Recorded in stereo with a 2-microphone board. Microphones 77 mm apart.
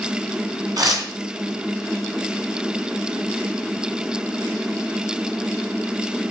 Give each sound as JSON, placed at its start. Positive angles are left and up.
{"t": 0.8, "sound": "tearing paper", "side_deg": -55, "distance_m": 3.0}